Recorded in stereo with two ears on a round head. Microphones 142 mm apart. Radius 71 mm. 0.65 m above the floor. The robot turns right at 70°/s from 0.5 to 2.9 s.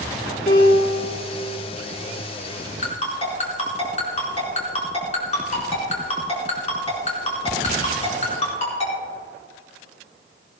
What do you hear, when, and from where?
0.5 s a piano: 45° left, 5 m; by 1.1 s 85° left, 5 m
2.8 s a ringtone: 50° left (ahead or behind), 4.5 m; by 8.9 s 45° left (ahead or behind), 4.5 m